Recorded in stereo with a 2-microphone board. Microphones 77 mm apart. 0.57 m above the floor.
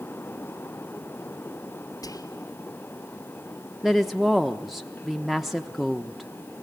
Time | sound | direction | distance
2.0 | whispering | 55° left (ahead or behind) | 1.6 m
3.8 | a woman speaking | centre (ahead or behind) | 0.8 m